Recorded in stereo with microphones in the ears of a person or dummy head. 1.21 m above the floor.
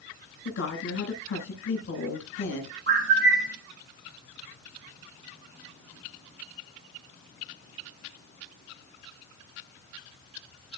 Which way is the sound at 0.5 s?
75° left (ahead or behind).